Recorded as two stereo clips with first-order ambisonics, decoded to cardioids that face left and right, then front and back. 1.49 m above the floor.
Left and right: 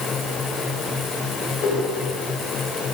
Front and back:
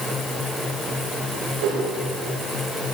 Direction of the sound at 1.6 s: 155° left.